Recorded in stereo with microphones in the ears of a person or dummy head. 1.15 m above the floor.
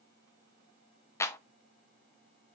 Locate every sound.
1.2 s a clap: 20° left (ahead or behind), 0.7 m